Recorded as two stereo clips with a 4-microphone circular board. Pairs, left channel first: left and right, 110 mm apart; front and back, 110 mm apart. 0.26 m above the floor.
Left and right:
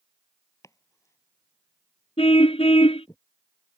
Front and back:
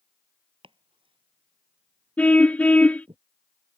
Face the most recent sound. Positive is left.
turn(degrees=75)